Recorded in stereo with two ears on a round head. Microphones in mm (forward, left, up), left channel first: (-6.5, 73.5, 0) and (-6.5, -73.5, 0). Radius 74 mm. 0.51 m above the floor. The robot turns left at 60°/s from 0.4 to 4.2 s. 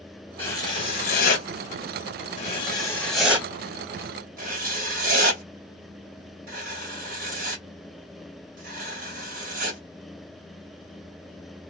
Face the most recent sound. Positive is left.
turn(degrees=-55)  # may be behind; listen again after turning